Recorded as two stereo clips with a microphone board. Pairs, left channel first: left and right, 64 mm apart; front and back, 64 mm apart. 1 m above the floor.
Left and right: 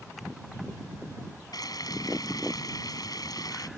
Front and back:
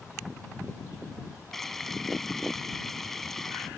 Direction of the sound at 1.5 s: 85° left.